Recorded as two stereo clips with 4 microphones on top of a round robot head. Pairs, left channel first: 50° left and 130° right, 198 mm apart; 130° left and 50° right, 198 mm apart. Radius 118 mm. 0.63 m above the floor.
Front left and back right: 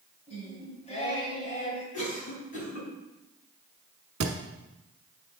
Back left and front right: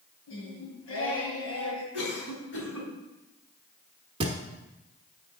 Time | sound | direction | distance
0.3 | singing | 110° left | 2 m
1.9 | a cough | 100° left | 3.5 m
4.2 | a thud | 115° right | 0.9 m